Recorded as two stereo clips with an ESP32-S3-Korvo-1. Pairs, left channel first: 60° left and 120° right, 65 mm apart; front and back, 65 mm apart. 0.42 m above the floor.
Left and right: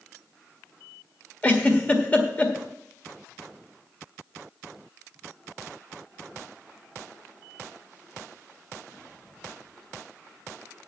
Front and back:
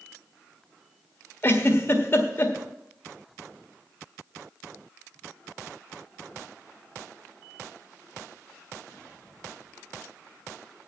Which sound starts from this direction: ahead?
A giggle, at 1.4 s.